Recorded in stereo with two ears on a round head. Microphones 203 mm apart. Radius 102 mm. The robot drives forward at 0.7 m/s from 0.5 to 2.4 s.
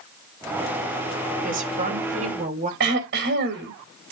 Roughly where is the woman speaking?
Right.